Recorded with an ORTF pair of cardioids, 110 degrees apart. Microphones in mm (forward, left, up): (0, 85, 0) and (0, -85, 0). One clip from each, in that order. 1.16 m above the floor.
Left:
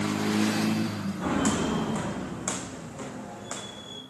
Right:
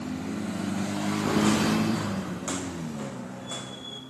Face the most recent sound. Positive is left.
turn(degrees=20)